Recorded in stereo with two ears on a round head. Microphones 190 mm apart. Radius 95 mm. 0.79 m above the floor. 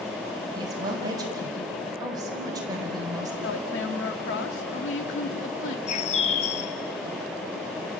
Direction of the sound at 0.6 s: 20° right (ahead or behind).